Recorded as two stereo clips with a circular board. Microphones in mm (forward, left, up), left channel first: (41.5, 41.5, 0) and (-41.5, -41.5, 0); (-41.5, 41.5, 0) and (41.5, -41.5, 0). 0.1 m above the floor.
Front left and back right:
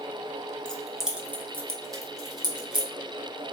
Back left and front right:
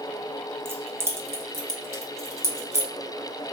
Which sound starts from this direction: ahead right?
Keys jangling, at 0.7 s.